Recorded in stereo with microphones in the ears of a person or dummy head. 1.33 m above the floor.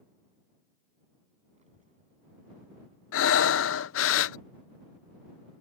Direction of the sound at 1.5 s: 40° right (ahead or behind).